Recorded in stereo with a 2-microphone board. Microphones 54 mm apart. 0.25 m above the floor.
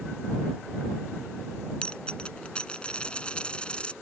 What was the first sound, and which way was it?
A dropped coin, 20° left (ahead or behind).